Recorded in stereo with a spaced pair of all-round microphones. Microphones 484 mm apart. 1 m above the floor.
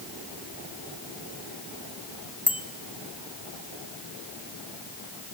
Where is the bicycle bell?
75° right (ahead or behind), 3.5 m.